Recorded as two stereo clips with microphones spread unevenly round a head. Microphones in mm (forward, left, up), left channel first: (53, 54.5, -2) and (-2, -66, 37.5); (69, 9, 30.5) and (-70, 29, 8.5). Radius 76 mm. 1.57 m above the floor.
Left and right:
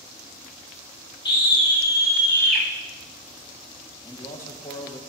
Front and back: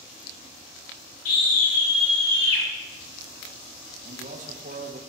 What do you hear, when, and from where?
1.2 s a scream: 10° left, 5 m; by 2.6 s 15° right, 5 m
4.0 s a man speaking: 140° left, 1.3 m